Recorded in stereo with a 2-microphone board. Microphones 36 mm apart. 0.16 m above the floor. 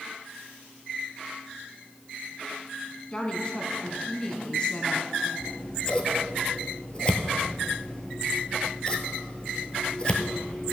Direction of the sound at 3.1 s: 25° left (ahead or behind).